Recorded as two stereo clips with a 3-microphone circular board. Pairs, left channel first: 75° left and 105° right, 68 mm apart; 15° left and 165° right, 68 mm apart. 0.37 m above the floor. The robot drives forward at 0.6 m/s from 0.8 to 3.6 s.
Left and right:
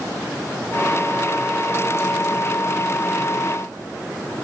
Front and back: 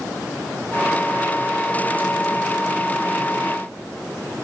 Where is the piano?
No piano in this recording.